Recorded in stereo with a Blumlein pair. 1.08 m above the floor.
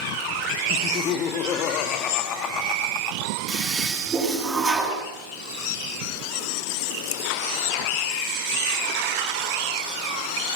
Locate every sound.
0.7 s laughter: 30° left, 1.6 m
3.5 s a toilet flushing: 10° right, 9 m